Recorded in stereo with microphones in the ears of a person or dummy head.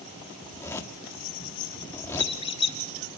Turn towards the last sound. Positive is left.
turn(degrees=30)  # may be behind; listen again after turning